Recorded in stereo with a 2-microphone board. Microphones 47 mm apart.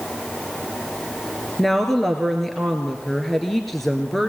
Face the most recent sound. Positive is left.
turn(degrees=5)  # may be behind; listen again after turning